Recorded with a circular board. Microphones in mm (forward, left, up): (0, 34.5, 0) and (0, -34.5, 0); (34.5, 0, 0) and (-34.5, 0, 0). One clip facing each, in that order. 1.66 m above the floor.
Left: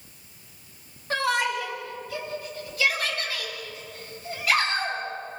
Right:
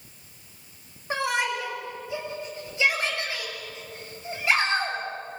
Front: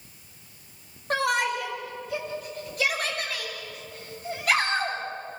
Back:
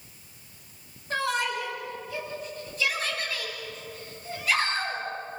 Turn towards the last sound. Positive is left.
turn(degrees=-25)